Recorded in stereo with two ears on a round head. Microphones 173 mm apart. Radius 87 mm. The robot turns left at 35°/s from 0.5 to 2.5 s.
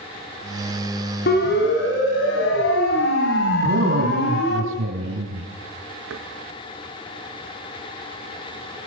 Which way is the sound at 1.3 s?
55° left (ahead or behind).